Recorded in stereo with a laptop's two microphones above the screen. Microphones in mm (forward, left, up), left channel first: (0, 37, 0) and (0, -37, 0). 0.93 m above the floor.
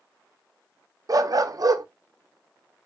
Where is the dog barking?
55° right (ahead or behind), 0.5 m.